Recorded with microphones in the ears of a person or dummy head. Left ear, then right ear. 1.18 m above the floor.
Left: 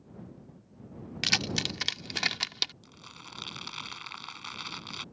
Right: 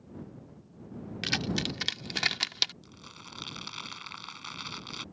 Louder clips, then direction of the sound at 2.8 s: Even; 10° left (ahead or behind).